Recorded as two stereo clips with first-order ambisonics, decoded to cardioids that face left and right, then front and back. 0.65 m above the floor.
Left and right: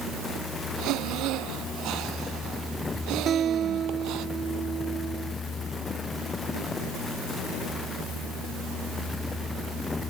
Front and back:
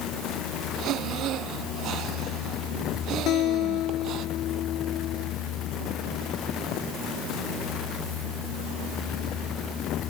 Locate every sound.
0.8 s breathing: 130° right
3.3 s a guitar: 35° right